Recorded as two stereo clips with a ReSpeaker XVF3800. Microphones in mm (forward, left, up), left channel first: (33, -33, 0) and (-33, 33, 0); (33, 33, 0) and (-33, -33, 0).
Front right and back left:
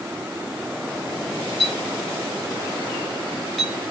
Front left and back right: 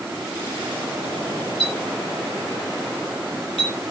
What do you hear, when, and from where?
1.6 s a clink: 45° left, 5 m